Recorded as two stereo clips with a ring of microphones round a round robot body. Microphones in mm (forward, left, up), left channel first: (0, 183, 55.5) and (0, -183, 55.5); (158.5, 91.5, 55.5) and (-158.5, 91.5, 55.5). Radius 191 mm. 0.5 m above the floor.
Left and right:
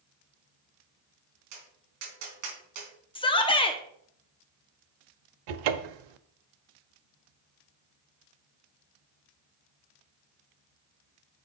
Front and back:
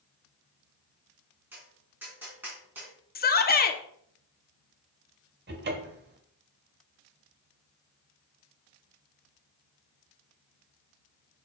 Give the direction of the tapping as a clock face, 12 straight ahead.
3 o'clock.